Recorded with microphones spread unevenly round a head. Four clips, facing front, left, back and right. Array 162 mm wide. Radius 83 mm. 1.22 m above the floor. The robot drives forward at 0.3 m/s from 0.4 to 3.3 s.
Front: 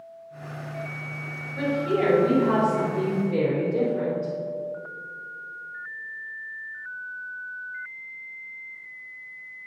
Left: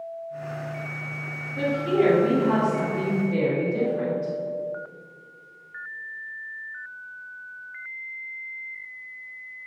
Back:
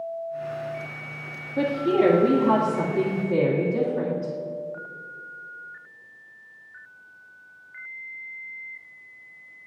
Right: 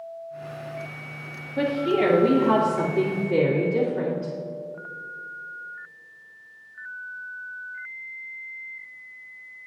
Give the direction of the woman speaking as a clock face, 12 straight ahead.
5 o'clock.